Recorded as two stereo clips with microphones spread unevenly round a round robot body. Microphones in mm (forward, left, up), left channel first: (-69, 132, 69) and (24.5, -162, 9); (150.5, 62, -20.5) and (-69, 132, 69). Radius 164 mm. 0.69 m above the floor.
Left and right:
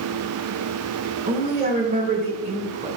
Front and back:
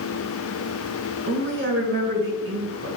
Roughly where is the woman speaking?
Behind right.